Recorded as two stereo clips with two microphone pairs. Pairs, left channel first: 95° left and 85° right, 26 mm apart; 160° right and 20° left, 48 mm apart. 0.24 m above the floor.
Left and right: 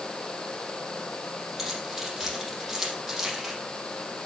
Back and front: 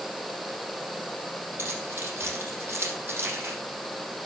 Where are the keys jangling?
20° right, 6.5 m.